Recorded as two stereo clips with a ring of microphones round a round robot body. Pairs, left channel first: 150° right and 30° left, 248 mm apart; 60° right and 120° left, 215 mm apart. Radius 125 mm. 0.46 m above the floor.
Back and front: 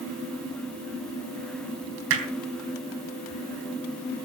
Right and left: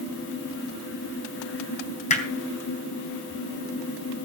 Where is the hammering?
5° right, 3.5 m.